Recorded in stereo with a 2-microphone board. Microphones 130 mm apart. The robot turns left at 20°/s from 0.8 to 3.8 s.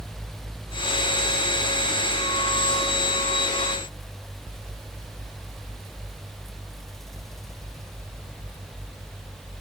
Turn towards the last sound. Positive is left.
No sound to turn to.